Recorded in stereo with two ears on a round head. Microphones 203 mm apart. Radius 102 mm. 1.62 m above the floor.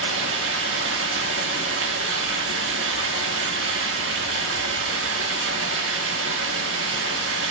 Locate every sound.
0.0 s running water: 55° right (ahead or behind), 2 m